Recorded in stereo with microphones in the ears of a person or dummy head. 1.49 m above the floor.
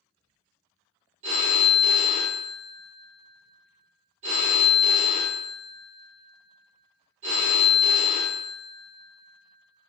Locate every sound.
1.2 s a phone ringing: 40° right (ahead or behind), 0.9 m